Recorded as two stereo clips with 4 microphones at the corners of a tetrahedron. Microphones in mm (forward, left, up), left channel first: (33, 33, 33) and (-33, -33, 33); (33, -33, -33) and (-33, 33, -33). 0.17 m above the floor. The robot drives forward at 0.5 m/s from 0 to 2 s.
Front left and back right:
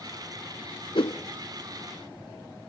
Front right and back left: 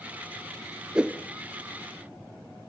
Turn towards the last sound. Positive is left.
turn(degrees=105)